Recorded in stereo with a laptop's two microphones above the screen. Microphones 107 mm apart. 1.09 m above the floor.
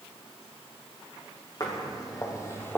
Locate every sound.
1.6 s footsteps: 40° left (ahead or behind), 2.5 m; by 2.8 s 15° left (ahead or behind), 1.1 m